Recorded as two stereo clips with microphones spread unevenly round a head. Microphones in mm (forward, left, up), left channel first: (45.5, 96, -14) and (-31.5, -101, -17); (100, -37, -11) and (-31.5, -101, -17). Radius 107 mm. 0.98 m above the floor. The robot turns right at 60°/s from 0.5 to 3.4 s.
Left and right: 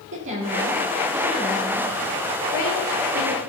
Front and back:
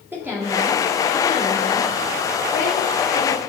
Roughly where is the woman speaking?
Right.